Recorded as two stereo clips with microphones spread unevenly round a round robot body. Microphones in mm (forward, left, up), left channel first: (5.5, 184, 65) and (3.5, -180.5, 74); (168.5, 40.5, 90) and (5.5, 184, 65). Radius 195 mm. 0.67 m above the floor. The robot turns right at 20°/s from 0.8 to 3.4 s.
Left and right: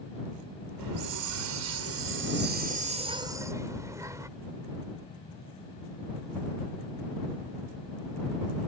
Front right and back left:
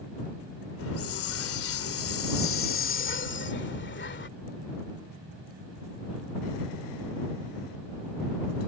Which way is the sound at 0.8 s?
60° right.